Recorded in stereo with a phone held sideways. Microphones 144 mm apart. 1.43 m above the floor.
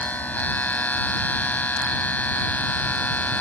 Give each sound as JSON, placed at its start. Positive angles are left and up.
{"t": 0.0, "sound": "a machine running", "side_deg": 10}